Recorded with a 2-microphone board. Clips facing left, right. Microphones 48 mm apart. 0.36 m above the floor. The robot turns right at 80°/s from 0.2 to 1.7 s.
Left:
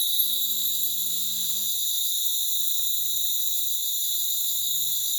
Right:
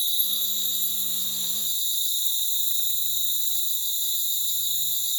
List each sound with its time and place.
0.0 s an insect: straight ahead, 0.9 m; by 5.2 s 120° left, 0.9 m